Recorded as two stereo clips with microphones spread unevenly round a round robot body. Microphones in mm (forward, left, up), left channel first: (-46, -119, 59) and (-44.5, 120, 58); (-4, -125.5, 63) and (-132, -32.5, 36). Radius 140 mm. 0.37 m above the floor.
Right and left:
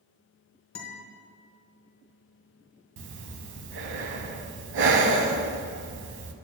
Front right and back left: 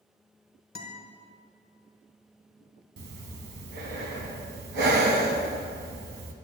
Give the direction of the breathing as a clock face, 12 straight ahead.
8 o'clock.